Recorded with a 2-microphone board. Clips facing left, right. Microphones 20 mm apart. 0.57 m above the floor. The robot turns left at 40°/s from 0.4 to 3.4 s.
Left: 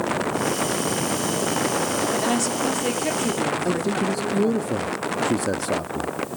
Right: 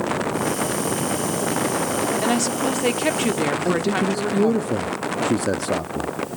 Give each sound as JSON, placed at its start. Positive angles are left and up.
{"t": 2.2, "sound": "a woman speaking", "azimuth_deg": -15, "distance_m": 1.4}
{"t": 3.6, "sound": "a man speaking", "side_deg": -5, "distance_m": 0.6}